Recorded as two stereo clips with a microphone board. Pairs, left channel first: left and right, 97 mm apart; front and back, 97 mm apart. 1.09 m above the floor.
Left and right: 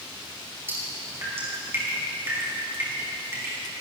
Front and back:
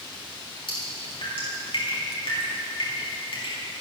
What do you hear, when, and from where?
0.7 s dripping: 25° right, 5.5 m